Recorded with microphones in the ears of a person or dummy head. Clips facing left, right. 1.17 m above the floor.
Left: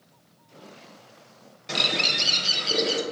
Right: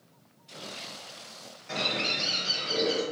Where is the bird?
50° left (ahead or behind), 1.0 m.